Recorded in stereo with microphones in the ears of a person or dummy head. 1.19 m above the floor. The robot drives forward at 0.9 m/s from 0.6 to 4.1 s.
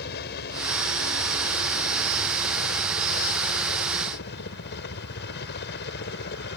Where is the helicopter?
50° left (ahead or behind); by 6.6 s 55° left (ahead or behind).